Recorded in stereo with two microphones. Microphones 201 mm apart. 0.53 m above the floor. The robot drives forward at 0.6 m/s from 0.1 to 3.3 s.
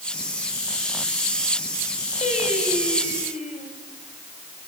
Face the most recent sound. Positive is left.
turn(degrees=40)  # may be behind; listen again after turning